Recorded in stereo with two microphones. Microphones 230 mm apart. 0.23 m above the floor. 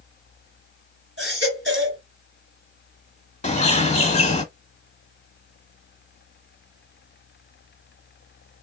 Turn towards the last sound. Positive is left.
turn(degrees=30)  # may be behind; listen again after turning